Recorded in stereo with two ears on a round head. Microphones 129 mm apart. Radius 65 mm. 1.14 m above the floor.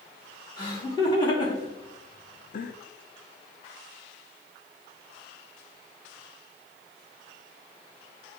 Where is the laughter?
25° left (ahead or behind), 3 m; by 2.8 s 55° left (ahead or behind), 0.5 m.